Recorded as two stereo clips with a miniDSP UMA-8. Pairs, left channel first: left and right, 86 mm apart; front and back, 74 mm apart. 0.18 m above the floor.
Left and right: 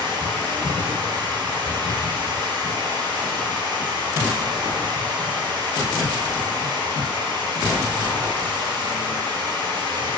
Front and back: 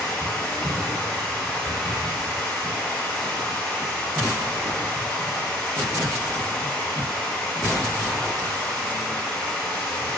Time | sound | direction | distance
0.0 | running water | 75° right | 3 m